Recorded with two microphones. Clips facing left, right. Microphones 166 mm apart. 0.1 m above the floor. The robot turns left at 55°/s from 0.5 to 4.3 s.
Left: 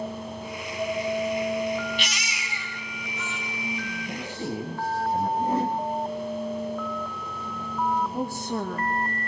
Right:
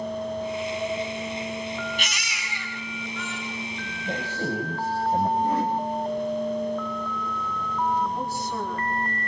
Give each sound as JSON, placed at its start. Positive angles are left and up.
{"t": 2.0, "sound": "a baby crying", "azimuth_deg": -45, "distance_m": 5.0}
{"t": 4.0, "sound": "a man speaking", "side_deg": -55, "distance_m": 8.5}
{"t": 5.4, "sound": "a whoosh", "side_deg": 25, "distance_m": 4.0}
{"t": 8.1, "sound": "a woman speaking", "side_deg": 50, "distance_m": 5.5}